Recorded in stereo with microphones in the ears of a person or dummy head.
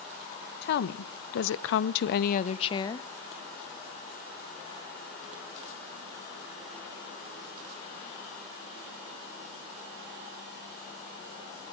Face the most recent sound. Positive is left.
turn(degrees=15)  # may be behind; listen again after turning